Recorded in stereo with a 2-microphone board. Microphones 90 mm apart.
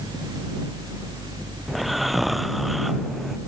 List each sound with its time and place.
1.7 s snoring: centre (ahead or behind)